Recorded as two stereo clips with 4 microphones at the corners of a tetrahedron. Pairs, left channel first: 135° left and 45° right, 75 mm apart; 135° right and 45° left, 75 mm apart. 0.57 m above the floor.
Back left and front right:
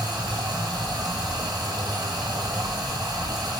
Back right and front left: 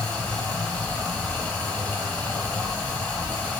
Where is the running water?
65° right, 1.3 m.